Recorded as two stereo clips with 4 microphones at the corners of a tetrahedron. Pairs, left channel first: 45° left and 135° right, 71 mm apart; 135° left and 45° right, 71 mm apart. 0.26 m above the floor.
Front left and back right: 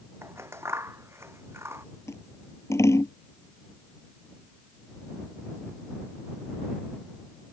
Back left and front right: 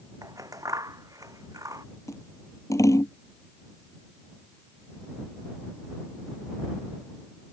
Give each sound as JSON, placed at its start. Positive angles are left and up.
{"t": 0.2, "sound": "scissors", "azimuth_deg": -85}
{"t": 2.1, "sound": "scissors", "azimuth_deg": 95}